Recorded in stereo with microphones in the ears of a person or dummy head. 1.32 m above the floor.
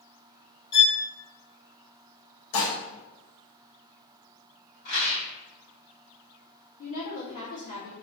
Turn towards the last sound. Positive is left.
turn(degrees=40)  # may be behind; listen again after turning